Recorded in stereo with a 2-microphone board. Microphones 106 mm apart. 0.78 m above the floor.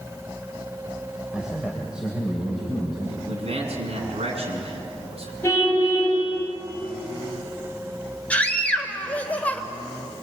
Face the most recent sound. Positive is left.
turn(degrees=15)  # may be behind; listen again after turning